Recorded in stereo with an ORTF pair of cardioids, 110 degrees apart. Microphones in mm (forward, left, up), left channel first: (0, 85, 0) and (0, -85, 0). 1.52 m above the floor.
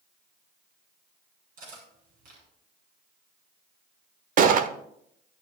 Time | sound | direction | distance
1.6 | cutlery clinking | 55° right | 7.5 m
4.4 | a gunshot | 55° right | 0.9 m